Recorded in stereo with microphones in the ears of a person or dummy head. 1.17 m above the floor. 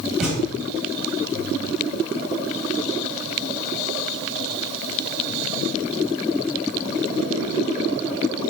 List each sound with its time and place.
0.2 s a thud: 5° right (ahead or behind), 1.0 m